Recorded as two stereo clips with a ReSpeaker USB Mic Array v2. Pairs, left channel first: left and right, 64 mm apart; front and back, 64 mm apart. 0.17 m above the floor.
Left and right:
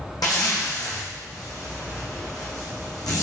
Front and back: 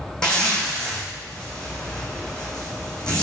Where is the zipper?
80° left, 1.6 m.